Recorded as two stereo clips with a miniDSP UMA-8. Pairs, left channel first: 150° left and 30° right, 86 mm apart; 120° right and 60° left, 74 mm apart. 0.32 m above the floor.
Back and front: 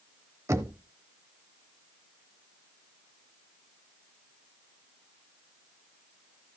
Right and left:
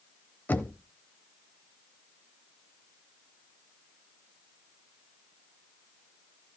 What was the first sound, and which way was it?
Knocking, 65° right.